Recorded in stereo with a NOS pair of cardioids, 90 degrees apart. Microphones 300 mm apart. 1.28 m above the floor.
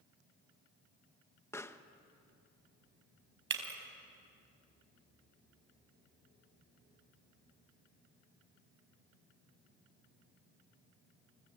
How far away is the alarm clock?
No alarm clock in this recording.